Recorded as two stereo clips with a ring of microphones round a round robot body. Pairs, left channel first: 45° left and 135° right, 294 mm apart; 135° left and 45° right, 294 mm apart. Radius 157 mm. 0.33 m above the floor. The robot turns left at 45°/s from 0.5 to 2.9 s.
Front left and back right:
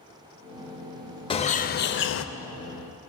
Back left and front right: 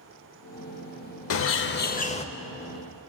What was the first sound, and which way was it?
A bird, 110° left.